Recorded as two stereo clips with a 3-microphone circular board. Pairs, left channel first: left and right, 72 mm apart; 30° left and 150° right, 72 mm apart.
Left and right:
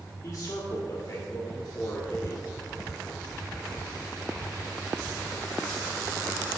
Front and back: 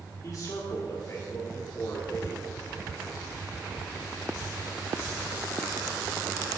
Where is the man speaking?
60° left, 1.7 m.